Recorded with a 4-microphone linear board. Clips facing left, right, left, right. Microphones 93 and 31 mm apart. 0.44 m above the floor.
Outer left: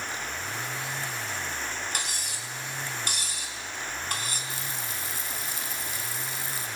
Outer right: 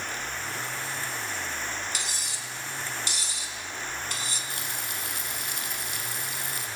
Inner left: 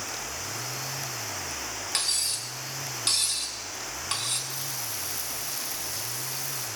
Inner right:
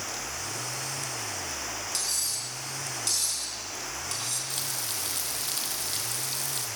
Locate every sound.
1.9 s cutlery clinking: 50° left (ahead or behind), 3 m
4.5 s frying: 65° right (ahead or behind), 3.5 m